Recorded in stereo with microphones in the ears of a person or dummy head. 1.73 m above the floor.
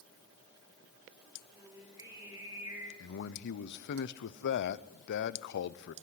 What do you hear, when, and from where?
1.5 s singing: 15° right (ahead or behind), 4 m
3.0 s a man speaking: 60° left (ahead or behind), 0.8 m